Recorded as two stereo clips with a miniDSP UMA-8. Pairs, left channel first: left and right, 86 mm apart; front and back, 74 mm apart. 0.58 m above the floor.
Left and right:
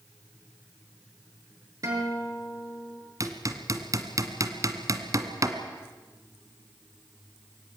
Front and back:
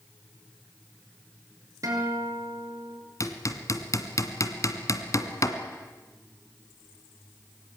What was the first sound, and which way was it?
A guitar, 140° right.